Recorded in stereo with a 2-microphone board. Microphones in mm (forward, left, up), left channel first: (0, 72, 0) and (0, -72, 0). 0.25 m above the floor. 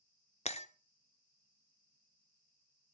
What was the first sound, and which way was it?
Breaking glass, 50° left (ahead or behind).